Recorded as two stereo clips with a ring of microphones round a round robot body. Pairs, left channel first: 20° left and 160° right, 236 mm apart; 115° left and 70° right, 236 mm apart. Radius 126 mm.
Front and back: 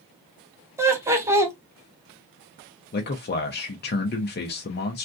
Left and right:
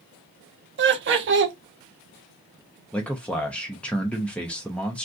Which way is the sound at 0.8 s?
80° right.